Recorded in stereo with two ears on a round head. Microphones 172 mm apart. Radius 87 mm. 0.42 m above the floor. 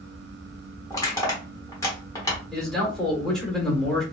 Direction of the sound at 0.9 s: 15° left (ahead or behind).